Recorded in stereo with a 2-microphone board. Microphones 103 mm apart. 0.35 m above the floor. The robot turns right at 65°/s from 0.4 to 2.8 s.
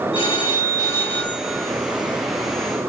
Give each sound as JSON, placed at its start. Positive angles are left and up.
{"t": 0.1, "sound": "a phone ringing", "azimuth_deg": 115, "distance_m": 4.0}